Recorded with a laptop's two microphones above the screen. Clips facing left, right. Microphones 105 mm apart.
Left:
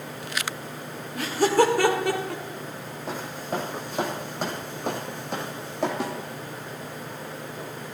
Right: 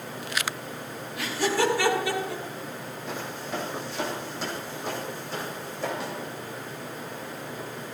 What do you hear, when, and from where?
1.1 s laughter: 45° left (ahead or behind), 2.5 m; by 2.4 s 55° left (ahead or behind), 3.5 m
3.1 s footsteps: 40° left (ahead or behind), 3.5 m; by 5.9 s 70° left (ahead or behind), 3.5 m
6.0 s a snare drum: 85° left, 1.9 m